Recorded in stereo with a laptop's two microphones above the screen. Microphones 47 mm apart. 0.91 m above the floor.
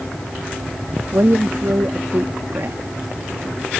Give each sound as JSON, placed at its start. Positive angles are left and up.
{"t": 1.1, "sound": "a woman speaking", "side_deg": -60}